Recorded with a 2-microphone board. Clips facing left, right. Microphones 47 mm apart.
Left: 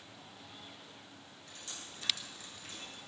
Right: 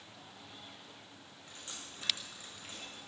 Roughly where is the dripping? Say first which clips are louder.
Even; right.